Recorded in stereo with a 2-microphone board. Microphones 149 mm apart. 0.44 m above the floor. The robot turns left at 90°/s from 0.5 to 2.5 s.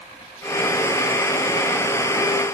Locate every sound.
Only background noise.